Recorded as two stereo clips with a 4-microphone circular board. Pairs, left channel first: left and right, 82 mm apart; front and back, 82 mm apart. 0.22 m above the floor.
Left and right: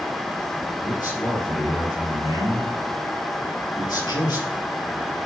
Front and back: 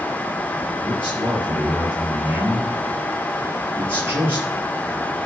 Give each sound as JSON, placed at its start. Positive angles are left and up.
{"t": 0.8, "sound": "a man speaking", "azimuth_deg": 125, "distance_m": 5.5}